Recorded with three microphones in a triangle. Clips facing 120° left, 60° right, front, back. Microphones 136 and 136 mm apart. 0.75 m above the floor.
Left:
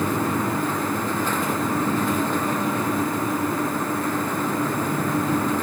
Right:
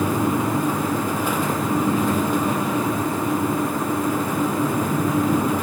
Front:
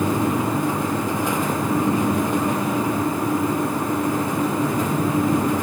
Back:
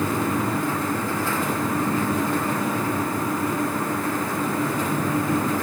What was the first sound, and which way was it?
Only background noise.